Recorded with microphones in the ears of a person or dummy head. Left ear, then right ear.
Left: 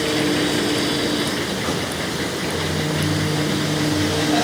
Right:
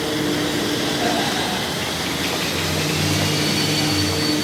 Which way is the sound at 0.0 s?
10° left (ahead or behind).